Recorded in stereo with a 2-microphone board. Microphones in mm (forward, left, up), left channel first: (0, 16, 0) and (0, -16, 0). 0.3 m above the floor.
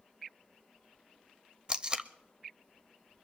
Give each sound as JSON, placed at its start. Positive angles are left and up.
{"t": 1.7, "sound": "tape being pulled", "side_deg": -30, "distance_m": 0.6}